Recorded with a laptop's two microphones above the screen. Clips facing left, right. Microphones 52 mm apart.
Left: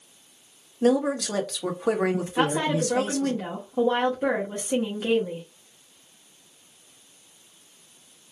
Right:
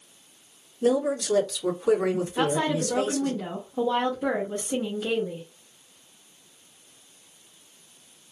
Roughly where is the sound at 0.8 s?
Left.